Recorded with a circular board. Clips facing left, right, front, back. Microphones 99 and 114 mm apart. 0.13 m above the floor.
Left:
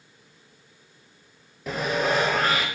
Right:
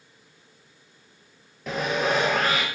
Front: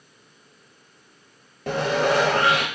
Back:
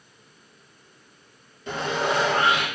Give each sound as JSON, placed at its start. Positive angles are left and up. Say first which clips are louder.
{"t": 1.7, "sound": "sawing", "louder": "even, front 4 dB", "azimuth_deg": 5, "distance_m": 0.6}